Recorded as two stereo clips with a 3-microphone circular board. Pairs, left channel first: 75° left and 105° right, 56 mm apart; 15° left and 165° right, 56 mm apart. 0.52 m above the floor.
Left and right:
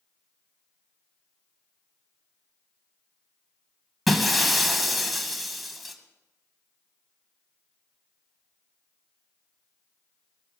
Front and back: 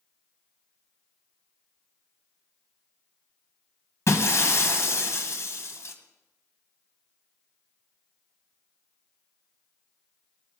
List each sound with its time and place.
4.1 s breaking glass: 15° right, 1.9 m